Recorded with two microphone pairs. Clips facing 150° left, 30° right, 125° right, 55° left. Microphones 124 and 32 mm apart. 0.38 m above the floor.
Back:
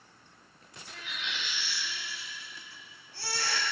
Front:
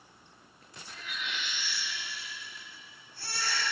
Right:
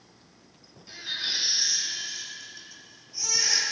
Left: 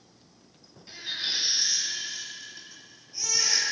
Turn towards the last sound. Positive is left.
turn(degrees=135)